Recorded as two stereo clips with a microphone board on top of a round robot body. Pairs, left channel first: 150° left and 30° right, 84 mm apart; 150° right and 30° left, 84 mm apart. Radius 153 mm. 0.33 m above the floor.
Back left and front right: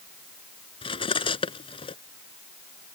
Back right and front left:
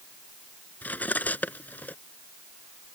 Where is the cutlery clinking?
140° left.